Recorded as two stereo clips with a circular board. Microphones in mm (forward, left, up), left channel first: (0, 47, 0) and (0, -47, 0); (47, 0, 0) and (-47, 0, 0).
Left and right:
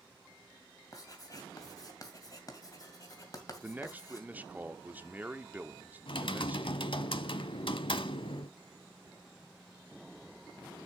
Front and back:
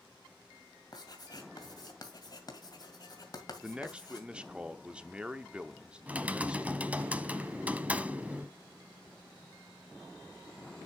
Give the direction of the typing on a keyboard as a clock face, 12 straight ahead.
8 o'clock.